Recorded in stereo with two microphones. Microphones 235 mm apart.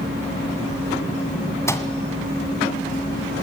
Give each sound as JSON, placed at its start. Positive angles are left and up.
{"t": 1.7, "sound": "a microwave", "side_deg": 10, "distance_m": 1.9}